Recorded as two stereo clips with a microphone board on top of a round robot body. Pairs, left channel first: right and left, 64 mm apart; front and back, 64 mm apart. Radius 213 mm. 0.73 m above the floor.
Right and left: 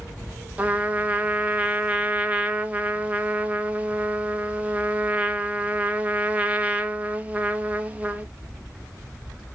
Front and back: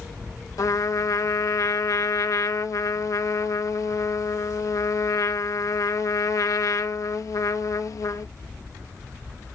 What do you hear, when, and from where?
0.6 s a trumpet: 25° left, 1.3 m